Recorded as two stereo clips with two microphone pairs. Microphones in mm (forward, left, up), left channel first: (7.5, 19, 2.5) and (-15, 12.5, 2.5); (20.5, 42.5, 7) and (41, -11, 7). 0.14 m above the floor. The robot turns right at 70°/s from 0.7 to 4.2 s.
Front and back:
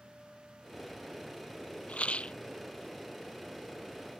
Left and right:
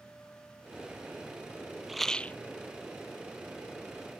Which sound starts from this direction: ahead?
A rattle, at 1.9 s.